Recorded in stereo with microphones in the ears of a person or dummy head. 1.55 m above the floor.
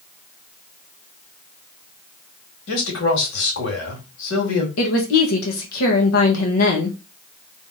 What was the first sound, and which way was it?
A man speaking, 75° left (ahead or behind).